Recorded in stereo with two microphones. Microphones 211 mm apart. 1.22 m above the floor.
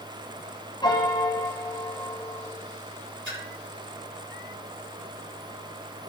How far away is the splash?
About 3.5 m.